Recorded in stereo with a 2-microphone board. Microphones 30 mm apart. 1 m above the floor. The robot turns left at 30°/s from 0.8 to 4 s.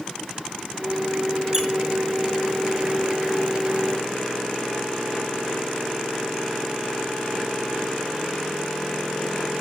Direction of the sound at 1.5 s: 15° right (ahead or behind).